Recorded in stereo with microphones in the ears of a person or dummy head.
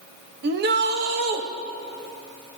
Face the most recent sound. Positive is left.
turn(degrees=-55)  # may be behind; listen again after turning